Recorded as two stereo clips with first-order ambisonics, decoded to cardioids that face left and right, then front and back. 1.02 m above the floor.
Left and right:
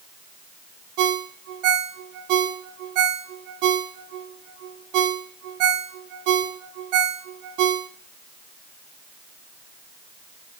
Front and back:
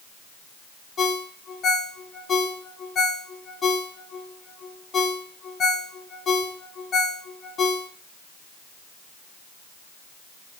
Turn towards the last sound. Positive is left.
turn(degrees=-65)